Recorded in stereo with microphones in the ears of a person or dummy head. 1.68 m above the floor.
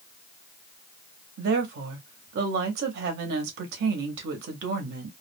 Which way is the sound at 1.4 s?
55° right (ahead or behind).